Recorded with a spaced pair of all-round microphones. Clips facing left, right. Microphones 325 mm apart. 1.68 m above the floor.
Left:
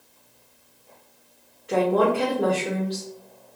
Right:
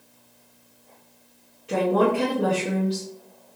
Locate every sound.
1.7 s a woman speaking: 40° right (ahead or behind), 0.8 m